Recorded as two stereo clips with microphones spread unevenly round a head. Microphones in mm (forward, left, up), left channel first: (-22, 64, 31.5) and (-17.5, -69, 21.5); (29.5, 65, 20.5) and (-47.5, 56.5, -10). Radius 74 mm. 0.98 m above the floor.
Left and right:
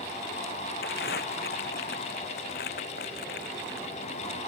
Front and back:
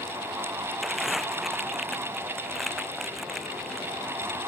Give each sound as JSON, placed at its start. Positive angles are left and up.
{"t": 0.8, "sound": "crumpling", "azimuth_deg": 95}